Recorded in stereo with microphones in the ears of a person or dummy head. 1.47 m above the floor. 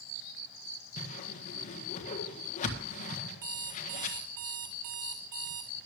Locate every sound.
1.0 s a whoosh: 40° left (ahead or behind), 1.6 m
3.4 s an alarm clock: 20° right (ahead or behind), 1.6 m